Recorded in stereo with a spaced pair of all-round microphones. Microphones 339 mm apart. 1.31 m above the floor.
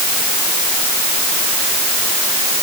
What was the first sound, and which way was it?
Only background noise.